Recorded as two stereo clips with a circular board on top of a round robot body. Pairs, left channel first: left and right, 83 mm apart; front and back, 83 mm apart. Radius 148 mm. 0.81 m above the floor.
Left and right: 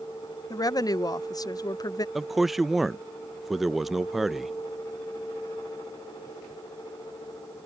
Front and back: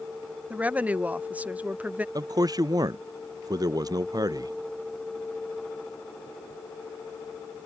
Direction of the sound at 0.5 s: 110° left.